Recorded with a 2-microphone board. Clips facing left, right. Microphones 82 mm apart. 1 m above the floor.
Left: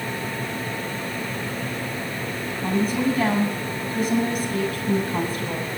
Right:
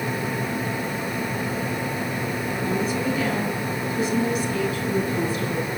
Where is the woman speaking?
45° left (ahead or behind), 7.5 m.